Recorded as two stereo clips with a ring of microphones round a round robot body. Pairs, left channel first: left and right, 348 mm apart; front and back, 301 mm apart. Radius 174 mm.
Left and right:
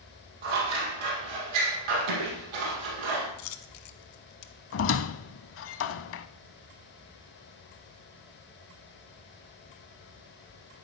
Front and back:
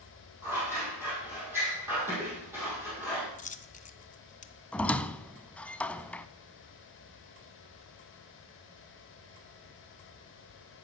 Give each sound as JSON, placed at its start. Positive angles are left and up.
{"t": 0.4, "sound": "scissors", "azimuth_deg": -95, "distance_m": 4.5}
{"t": 3.4, "sound": "a dropped coin", "azimuth_deg": 65, "distance_m": 1.1}
{"t": 4.7, "sound": "a squeak", "azimuth_deg": 85, "distance_m": 0.7}